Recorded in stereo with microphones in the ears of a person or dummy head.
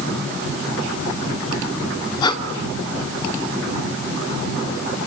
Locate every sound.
2.2 s breathing: 30° left (ahead or behind), 3 m